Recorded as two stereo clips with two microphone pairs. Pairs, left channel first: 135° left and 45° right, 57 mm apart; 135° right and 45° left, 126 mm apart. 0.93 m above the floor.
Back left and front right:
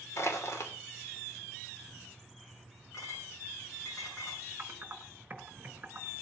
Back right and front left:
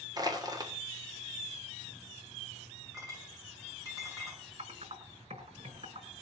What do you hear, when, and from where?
0.2 s crushing: 105° left, 2.5 m
2.9 s a clink: 110° left, 9.5 m
4.6 s typing on a keyboard: 15° left, 4.5 m